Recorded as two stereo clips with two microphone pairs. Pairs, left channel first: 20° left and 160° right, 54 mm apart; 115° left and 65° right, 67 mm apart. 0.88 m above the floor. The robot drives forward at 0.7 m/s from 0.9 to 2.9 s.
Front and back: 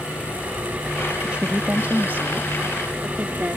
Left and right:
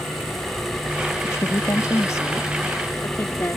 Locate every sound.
1.2 s a woman speaking: 130° left; by 3.6 s 155° left